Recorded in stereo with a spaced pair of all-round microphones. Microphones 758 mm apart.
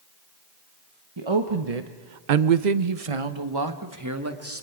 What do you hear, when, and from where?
1.2 s a woman speaking: 35° right (ahead or behind), 1.5 m; by 4.6 s 15° right (ahead or behind), 2.5 m